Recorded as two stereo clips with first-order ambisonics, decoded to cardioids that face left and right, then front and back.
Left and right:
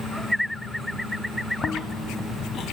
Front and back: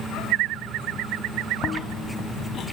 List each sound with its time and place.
1.6 s chewing: 45° left, 0.8 m